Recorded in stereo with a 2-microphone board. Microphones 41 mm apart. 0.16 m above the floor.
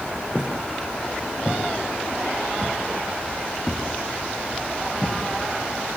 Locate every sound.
0.3 s footsteps: 20° right (ahead or behind), 4.5 m; by 6.0 s 25° left (ahead or behind), 2.5 m